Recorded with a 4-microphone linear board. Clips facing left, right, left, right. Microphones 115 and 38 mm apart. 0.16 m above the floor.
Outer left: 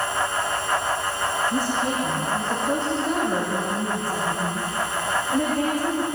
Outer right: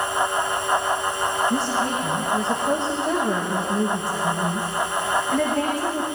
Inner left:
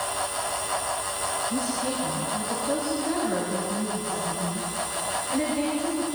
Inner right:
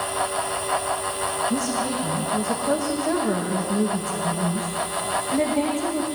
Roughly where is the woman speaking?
Right.